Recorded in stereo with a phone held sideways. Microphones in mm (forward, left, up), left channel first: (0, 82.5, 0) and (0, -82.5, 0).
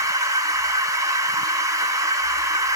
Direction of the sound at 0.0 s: 20° right (ahead or behind).